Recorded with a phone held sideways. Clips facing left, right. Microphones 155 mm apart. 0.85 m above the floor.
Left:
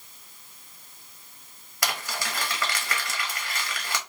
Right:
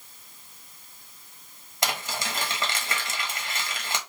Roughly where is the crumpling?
Right.